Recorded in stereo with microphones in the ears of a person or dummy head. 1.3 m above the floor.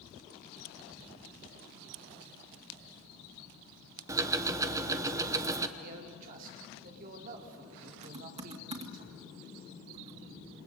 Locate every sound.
4.1 s ticking: 15° right (ahead or behind), 1.0 m
5.8 s a man speaking: 40° right (ahead or behind), 3.5 m
8.0 s typing on a keyboard: 35° right (ahead or behind), 2 m